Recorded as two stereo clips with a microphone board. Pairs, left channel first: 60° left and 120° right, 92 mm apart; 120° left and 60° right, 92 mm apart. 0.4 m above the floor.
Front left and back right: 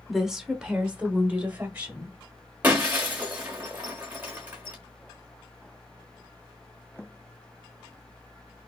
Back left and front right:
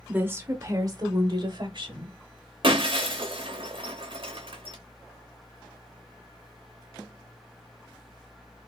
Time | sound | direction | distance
0.1 | a woman speaking | 35° right | 0.8 m
2.6 | breaking glass | 50° right | 1.2 m